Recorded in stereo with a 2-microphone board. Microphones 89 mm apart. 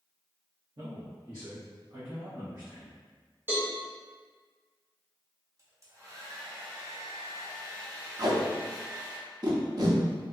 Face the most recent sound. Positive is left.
turn(degrees=-45)  # may be behind; listen again after turning